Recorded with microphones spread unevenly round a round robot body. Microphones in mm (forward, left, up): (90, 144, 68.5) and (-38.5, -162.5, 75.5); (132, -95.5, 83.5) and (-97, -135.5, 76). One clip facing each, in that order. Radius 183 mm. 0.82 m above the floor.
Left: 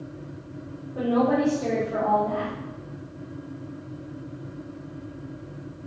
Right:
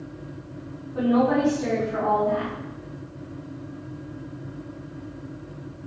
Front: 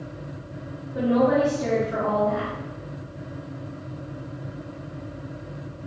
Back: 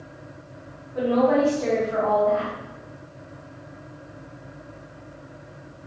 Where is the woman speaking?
50° right, 1.8 m.